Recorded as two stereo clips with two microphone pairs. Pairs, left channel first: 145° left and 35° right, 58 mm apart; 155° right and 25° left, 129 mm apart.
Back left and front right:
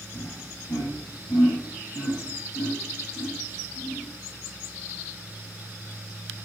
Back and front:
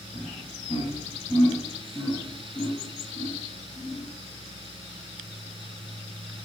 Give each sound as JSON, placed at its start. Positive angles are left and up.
{"t": 0.1, "sound": "laughter", "azimuth_deg": 150, "distance_m": 3.5}